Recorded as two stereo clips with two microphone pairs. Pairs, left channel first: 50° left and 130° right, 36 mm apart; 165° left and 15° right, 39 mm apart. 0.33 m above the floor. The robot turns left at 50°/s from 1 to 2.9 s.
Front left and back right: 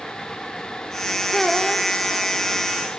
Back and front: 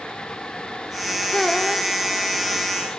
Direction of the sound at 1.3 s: 130° left.